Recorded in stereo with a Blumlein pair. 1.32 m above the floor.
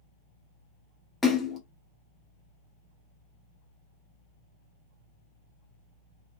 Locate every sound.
1.2 s a splash: 15° left, 0.7 m